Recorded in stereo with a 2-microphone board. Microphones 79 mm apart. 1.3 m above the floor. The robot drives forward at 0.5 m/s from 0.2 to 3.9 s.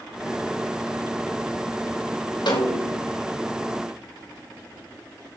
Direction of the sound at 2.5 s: 70° left (ahead or behind).